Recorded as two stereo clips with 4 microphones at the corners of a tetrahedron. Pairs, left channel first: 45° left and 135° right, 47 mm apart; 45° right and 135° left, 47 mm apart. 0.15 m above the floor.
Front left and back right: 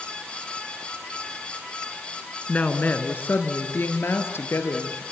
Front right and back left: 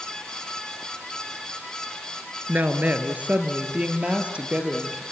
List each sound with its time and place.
2.5 s a woman speaking: 95° left, 2.0 m; by 5.0 s 65° left, 4 m